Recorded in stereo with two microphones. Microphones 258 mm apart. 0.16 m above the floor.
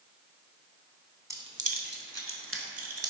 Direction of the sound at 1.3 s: 10° right (ahead or behind).